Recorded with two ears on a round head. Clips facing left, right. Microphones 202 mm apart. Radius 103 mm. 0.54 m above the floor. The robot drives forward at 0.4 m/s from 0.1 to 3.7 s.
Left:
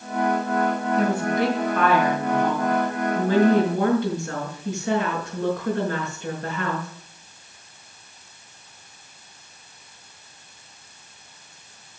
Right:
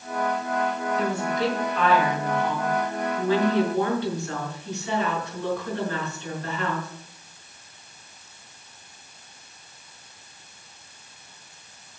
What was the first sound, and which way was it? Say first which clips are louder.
A woman speaking: left 4 dB; 50° left (ahead or behind).